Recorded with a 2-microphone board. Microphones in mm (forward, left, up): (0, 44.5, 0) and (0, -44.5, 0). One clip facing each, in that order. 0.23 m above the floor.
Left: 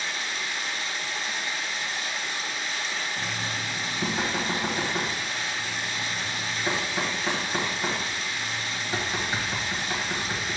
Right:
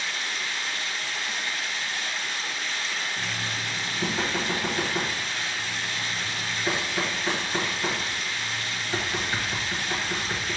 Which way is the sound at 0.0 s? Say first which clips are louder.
Even; 20° left (ahead or behind).